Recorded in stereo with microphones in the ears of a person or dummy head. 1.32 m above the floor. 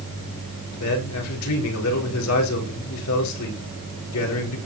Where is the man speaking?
80° left, 4.5 m.